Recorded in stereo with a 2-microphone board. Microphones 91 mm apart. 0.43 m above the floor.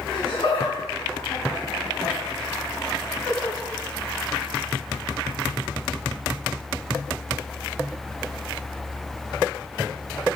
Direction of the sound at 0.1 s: 70° left (ahead or behind).